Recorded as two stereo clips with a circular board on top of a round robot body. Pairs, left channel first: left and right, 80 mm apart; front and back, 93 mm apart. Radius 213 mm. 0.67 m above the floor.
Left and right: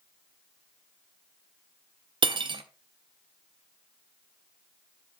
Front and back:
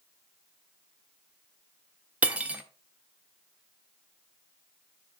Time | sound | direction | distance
2.2 | cutlery clinking | 105° right | 0.9 m